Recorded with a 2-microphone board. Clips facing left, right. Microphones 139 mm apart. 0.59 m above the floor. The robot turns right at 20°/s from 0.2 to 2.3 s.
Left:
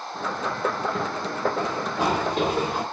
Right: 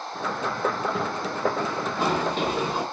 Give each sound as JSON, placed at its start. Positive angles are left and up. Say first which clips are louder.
{"t": 1.6, "sound": "running footsteps", "louder": "left 1 dB", "side_deg": 30, "distance_m": 2.0}